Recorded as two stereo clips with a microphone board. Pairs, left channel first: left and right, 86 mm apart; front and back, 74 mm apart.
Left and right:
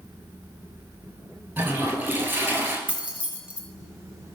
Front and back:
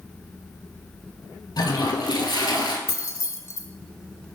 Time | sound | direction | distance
1.6 | a toilet flushing | 25° right | 1.1 m
2.9 | keys jangling | 20° right | 0.8 m